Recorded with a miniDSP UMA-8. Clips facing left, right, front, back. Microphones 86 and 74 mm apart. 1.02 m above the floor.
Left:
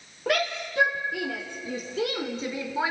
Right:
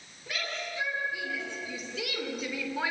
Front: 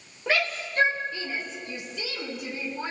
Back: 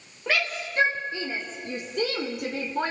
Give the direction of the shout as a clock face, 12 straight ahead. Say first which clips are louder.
Left 10 dB, front 1 dB; 9 o'clock.